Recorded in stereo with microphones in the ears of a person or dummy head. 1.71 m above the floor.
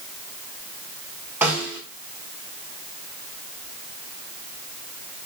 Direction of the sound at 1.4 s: 5° right (ahead or behind).